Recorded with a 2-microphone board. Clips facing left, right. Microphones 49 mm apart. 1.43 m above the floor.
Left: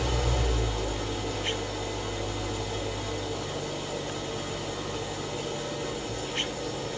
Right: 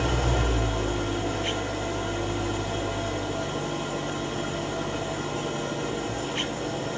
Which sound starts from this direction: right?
An engine running, at 0.0 s.